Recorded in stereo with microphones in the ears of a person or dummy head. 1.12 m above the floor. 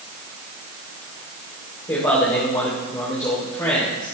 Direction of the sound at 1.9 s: 20° left (ahead or behind).